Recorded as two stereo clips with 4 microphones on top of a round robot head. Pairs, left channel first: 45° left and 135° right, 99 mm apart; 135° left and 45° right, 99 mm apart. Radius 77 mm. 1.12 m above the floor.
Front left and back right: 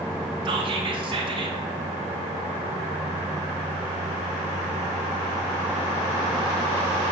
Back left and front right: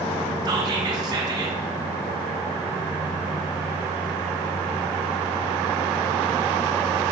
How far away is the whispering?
About 0.9 m.